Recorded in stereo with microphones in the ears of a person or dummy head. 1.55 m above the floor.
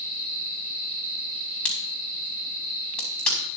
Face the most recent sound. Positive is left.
turn(degrees=0)  # may be behind; listen again after turning